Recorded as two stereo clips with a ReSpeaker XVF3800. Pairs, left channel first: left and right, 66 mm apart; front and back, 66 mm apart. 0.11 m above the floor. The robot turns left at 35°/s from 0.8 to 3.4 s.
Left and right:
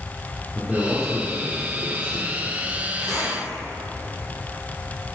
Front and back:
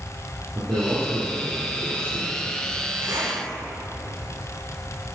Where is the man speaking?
175° right, 3.5 m; by 2.5 s 125° left, 3.5 m.